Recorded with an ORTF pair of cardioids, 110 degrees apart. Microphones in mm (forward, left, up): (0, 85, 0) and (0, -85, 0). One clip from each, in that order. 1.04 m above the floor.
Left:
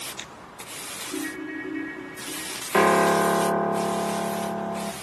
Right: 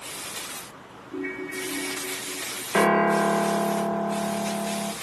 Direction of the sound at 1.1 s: 35° left.